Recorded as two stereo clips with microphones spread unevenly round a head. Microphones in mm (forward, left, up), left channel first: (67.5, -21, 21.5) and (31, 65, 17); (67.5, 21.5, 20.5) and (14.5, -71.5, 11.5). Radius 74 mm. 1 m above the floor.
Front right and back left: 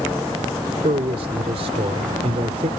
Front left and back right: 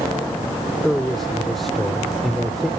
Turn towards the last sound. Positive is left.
turn(degrees=145)